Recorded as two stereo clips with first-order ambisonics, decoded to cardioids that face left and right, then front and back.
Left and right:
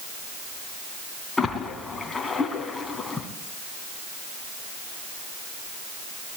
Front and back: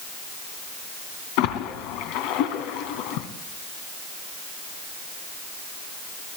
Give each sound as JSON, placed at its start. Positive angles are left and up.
{"t": 1.4, "sound": "a splash", "azimuth_deg": 10, "distance_m": 3.0}